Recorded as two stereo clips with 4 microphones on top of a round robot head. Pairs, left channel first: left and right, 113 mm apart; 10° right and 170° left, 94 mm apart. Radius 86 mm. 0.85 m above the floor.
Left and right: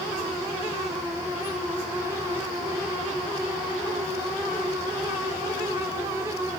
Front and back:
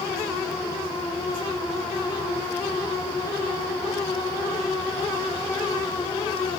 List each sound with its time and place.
Only background noise.